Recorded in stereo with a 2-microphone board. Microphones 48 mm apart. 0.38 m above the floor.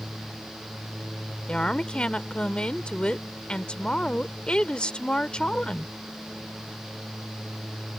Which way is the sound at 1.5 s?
20° left (ahead or behind).